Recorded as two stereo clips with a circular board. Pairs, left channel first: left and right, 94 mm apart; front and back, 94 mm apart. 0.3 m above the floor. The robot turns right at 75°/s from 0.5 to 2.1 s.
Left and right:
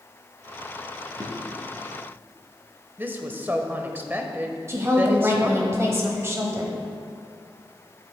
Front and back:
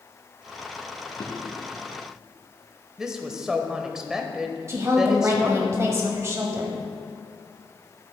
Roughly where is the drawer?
Ahead right.